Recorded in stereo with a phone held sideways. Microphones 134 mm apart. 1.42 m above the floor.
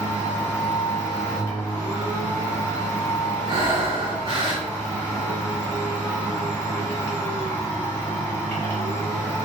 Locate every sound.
0.0 s a machine running: 20° left (ahead or behind), 1.4 m
3.5 s breathing: 40° right (ahead or behind), 0.8 m